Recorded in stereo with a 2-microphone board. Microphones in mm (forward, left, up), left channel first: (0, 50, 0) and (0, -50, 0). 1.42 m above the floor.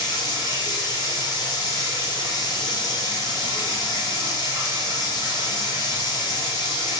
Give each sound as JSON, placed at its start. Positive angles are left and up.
{"t": 0.0, "sound": "running water", "side_deg": 40, "distance_m": 1.1}